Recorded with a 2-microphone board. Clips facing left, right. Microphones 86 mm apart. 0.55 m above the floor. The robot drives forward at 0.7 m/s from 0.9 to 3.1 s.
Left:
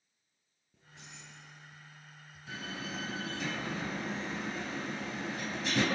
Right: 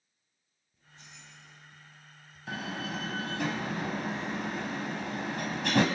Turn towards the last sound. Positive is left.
turn(degrees=-60)  # may be behind; listen again after turning